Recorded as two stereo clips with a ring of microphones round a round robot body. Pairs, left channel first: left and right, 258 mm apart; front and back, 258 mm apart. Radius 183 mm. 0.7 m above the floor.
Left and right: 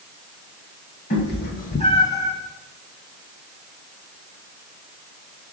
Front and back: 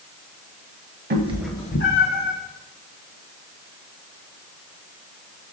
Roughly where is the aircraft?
I don't hear an aircraft.